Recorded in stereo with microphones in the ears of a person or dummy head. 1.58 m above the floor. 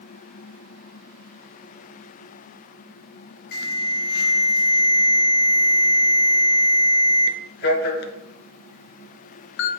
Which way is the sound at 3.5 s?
50° left (ahead or behind).